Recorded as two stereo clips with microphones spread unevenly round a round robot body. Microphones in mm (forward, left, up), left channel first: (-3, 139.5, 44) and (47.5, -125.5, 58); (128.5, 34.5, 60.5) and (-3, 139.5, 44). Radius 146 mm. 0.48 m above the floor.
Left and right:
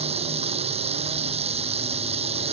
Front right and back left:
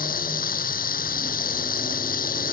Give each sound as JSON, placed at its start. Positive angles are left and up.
{"t": 0.0, "sound": "running water", "azimuth_deg": -10}